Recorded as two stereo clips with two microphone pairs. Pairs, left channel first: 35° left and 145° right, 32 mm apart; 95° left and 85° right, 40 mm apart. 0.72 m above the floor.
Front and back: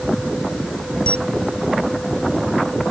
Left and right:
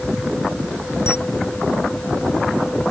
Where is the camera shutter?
80° left.